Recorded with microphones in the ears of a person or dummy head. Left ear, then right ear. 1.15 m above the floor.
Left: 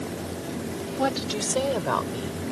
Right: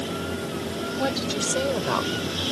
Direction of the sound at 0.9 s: 20° left (ahead or behind).